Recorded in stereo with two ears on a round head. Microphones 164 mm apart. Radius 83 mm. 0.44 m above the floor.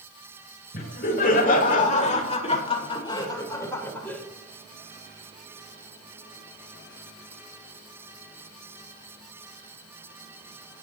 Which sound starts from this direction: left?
Laughter, at 0.7 s.